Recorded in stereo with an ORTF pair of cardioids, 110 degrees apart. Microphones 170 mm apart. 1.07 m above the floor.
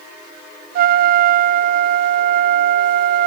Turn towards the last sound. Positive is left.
turn(degrees=-55)